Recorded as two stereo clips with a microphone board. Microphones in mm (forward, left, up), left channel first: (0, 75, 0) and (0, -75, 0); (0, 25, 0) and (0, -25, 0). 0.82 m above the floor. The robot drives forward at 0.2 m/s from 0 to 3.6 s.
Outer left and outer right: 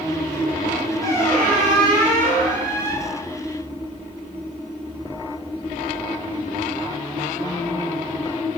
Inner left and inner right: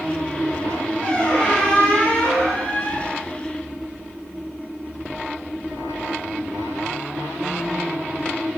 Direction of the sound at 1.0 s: 20° left (ahead or behind).